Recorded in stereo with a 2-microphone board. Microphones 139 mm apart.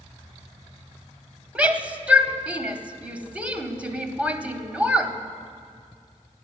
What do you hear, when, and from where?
1.6 s a shout: 10° right (ahead or behind), 1.0 m